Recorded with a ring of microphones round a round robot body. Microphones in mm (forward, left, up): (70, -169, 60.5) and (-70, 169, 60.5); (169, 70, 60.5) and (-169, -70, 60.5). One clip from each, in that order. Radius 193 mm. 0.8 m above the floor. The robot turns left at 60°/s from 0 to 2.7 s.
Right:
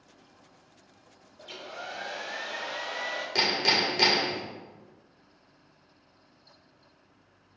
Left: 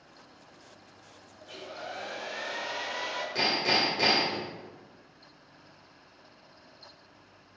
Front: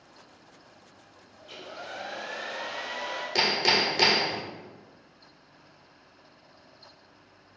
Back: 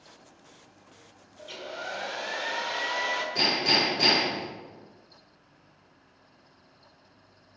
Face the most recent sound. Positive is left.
turn(degrees=-10)